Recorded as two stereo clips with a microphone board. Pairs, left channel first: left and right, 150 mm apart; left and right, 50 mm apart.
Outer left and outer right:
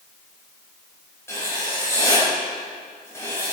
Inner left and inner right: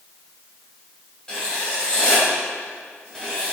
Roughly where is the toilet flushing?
I don't hear a toilet flushing.